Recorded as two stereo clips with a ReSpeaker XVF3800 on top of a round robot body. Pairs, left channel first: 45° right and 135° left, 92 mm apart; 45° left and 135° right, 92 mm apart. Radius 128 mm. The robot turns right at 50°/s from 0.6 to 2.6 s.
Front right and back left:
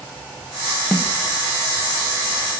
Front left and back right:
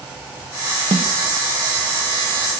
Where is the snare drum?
125° right, 0.7 m; by 1.1 s 115° right, 0.7 m.